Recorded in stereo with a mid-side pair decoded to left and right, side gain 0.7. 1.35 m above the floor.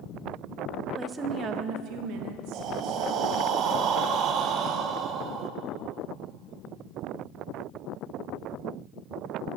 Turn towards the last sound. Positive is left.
turn(degrees=-50)